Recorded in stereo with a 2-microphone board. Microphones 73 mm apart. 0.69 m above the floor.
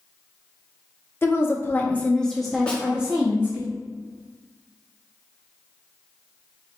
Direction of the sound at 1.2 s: 30° left (ahead or behind).